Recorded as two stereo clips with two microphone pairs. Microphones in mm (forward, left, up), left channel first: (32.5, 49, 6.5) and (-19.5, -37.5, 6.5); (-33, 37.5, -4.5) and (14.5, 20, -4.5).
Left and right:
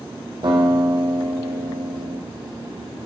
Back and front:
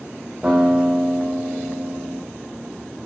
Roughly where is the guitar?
Right.